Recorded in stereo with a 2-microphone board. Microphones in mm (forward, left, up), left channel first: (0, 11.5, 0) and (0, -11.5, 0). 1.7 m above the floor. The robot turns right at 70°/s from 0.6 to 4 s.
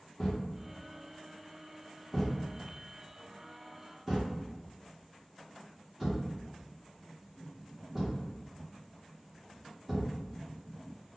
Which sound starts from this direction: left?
A thud, at 0.2 s.